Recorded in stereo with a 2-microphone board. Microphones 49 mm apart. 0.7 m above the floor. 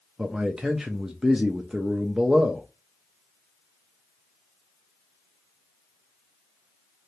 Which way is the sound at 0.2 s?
10° right (ahead or behind).